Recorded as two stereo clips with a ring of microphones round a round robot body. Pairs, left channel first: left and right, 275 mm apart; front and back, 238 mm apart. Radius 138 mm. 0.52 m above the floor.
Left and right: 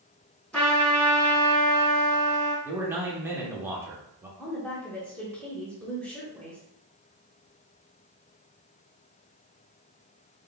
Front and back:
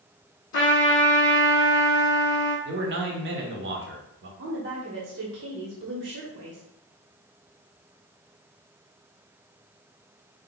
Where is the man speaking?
170° right, 1.0 m.